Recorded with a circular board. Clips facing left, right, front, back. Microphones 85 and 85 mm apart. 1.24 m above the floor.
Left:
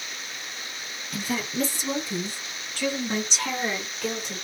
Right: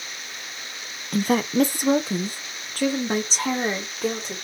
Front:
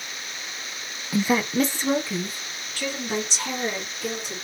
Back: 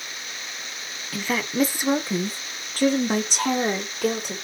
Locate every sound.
1.1 s a woman speaking: 65° right, 0.8 m; by 4.3 s 150° right, 2 m